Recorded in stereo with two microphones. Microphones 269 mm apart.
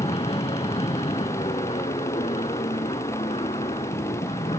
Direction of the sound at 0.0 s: 20° left (ahead or behind).